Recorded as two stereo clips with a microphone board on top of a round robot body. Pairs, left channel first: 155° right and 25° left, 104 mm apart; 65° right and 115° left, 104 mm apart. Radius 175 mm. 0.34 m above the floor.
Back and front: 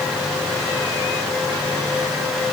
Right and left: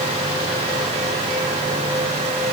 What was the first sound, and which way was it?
Only background noise.